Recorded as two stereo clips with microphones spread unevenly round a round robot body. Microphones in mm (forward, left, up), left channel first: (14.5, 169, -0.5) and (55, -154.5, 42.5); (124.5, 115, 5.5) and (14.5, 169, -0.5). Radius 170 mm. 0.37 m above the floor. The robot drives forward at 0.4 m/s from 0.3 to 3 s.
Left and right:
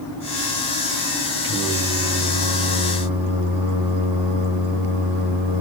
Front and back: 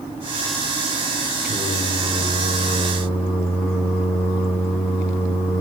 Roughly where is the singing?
Ahead right.